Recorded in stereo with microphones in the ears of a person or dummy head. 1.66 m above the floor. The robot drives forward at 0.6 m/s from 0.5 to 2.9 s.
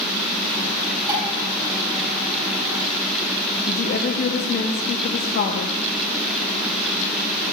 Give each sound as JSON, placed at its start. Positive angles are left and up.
{"t": 1.1, "sound": "dishes clattering", "side_deg": -10, "distance_m": 4.0}
{"t": 3.7, "sound": "a woman speaking", "side_deg": 45, "distance_m": 0.8}